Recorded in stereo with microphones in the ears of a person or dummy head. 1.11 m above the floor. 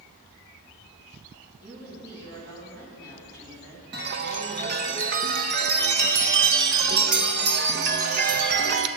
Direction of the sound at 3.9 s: 55° right (ahead or behind).